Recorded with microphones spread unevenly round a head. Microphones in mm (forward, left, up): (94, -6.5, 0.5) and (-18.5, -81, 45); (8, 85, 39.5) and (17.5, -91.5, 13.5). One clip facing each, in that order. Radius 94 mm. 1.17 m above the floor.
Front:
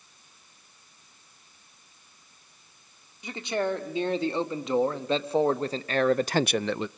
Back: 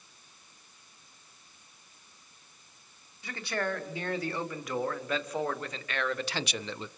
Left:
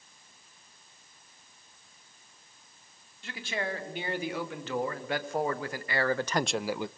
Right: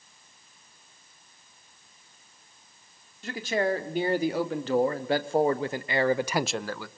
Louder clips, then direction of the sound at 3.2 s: Front 5 dB, right 8 dB; 35° right.